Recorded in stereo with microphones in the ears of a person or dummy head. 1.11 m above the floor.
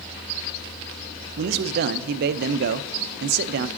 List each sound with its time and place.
1.4 s a man speaking: 60° right (ahead or behind), 0.5 m